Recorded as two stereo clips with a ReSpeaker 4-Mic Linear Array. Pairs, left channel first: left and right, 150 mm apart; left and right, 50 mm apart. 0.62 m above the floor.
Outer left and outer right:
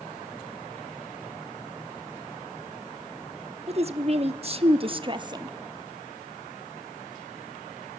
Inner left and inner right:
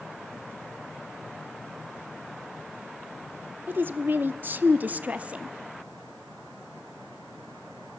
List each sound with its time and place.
3.7 s a woman speaking: 45° right (ahead or behind), 1.1 m; by 5.5 s 25° right (ahead or behind), 0.9 m